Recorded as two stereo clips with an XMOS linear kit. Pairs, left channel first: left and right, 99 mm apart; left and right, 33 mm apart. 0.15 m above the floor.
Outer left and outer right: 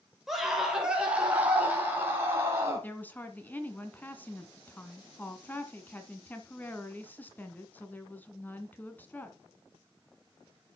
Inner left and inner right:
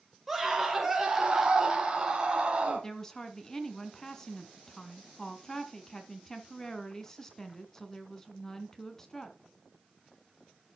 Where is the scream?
Centre (ahead or behind), 3 m; by 2.9 s 25° right (ahead or behind), 3.5 m.